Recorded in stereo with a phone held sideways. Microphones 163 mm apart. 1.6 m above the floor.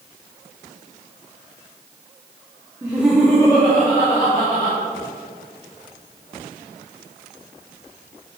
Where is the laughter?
20° right (ahead or behind), 0.9 m; by 4.8 s 45° left (ahead or behind), 2.5 m.